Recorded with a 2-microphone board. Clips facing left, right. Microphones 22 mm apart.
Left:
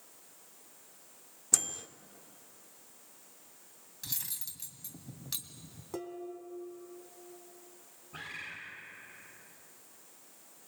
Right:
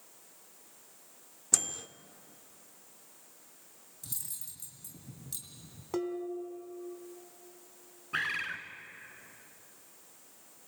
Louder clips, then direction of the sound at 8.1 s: Right 10 dB; 80° right.